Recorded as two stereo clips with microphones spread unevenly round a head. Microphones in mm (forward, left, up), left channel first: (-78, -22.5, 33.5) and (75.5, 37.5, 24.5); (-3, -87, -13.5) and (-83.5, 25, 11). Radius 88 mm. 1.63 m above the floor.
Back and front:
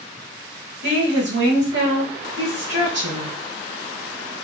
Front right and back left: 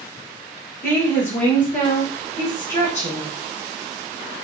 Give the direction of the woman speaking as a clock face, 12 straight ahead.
12 o'clock.